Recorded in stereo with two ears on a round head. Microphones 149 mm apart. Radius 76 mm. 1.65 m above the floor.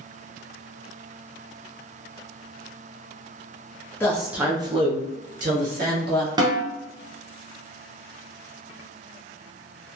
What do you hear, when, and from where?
4.0 s a woman speaking: 10° left (ahead or behind), 0.5 m; by 6.3 s 65° right (ahead or behind), 1.2 m
6.4 s a snare drum: 25° right (ahead or behind), 0.7 m